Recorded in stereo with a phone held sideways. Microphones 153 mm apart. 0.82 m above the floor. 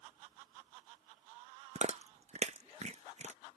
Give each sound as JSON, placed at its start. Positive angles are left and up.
{"t": 1.8, "sound": "chewing", "side_deg": -45}